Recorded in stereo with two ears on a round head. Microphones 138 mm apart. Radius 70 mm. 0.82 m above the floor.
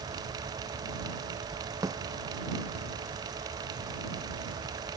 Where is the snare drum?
25° right (ahead or behind).